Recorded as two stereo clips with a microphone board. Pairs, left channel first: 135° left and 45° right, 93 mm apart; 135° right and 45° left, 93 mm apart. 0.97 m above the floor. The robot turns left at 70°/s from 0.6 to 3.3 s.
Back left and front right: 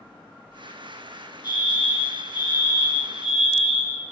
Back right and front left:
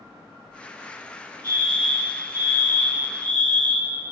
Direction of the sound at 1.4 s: 170° left.